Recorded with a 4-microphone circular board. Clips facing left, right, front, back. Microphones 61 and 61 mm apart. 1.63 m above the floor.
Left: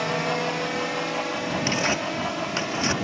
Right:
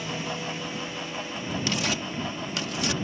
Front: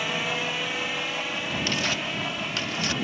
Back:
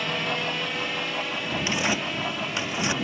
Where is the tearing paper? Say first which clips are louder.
Left 4 dB, back 4 dB; 125° left.